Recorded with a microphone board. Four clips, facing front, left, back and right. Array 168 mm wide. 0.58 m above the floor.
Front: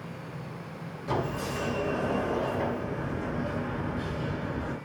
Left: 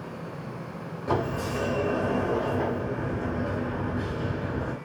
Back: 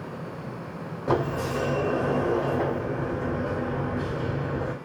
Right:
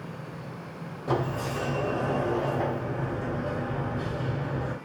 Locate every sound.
1.1 s a sliding door: 170° left, 1.0 m